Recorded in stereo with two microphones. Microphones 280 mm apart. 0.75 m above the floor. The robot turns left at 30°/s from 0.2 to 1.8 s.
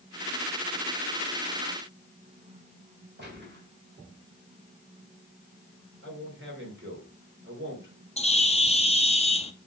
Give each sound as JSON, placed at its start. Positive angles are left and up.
{"t": 3.2, "sound": "a gunshot", "side_deg": -35, "distance_m": 4.0}
{"t": 6.0, "sound": "a man speaking", "side_deg": -40, "distance_m": 3.0}
{"t": 8.2, "sound": "a bird", "side_deg": 20, "distance_m": 0.7}